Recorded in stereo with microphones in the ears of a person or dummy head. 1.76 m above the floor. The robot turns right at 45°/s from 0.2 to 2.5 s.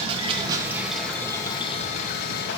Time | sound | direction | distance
0.0 | running water | 30° right | 2.5 m